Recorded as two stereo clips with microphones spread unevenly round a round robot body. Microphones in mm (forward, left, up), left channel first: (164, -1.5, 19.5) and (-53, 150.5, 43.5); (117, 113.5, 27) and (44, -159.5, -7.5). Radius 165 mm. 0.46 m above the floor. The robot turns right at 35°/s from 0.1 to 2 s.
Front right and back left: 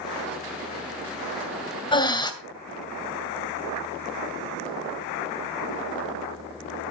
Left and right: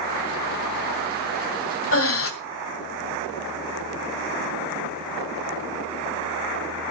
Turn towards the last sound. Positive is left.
turn(degrees=35)